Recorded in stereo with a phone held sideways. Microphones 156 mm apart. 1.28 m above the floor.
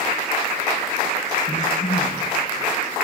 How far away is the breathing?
About 6.5 m.